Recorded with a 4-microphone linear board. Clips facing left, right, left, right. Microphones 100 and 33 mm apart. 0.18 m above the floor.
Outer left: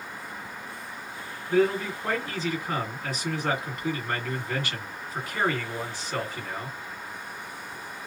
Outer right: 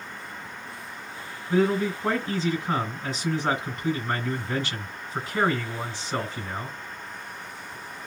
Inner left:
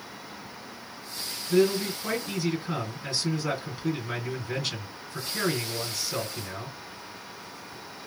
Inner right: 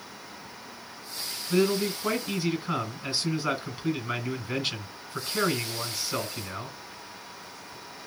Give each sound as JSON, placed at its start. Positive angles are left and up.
{"t": 1.5, "sound": "a man speaking", "side_deg": -25, "distance_m": 1.8}